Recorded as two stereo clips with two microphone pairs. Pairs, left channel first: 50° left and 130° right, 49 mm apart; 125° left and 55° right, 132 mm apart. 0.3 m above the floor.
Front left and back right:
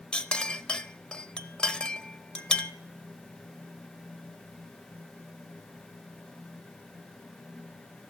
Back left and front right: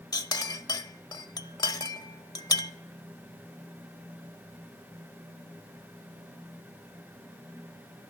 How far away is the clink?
About 0.6 m.